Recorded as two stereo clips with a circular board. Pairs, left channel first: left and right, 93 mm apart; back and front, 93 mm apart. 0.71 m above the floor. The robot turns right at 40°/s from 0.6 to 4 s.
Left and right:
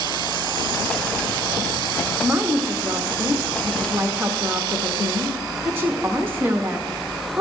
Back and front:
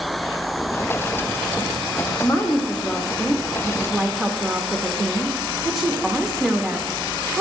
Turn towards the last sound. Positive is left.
turn(degrees=-90)